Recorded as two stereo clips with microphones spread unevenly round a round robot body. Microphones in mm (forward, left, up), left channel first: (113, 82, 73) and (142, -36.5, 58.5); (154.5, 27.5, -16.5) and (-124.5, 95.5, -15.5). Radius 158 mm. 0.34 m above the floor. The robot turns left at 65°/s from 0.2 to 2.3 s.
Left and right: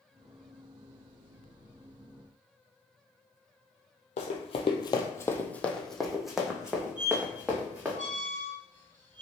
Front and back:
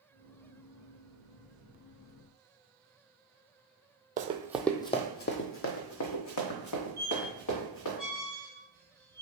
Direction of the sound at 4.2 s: 105° left.